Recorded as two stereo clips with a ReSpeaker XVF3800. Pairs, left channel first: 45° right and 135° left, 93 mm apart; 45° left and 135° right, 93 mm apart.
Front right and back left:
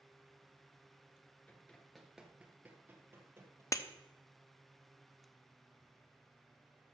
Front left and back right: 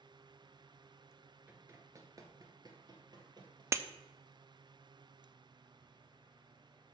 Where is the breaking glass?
85° right, 0.5 m.